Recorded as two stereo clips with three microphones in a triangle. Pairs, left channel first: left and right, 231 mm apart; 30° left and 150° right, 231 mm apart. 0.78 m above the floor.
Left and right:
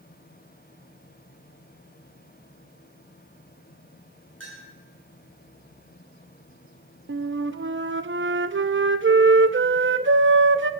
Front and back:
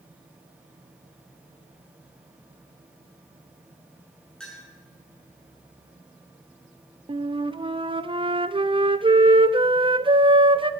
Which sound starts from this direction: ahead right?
A clink, at 4.4 s.